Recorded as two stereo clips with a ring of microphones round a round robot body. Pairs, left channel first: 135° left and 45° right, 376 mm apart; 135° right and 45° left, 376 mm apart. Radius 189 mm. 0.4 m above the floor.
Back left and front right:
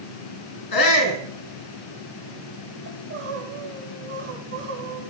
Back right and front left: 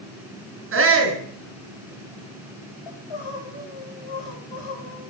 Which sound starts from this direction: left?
A shout, at 0.7 s.